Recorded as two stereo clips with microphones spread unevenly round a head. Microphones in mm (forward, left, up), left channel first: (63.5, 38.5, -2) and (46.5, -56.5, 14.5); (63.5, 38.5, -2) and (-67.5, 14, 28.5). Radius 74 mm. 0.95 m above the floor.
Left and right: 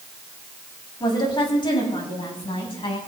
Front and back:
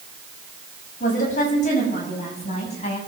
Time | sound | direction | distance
1.0 | a woman speaking | 40° left | 6 m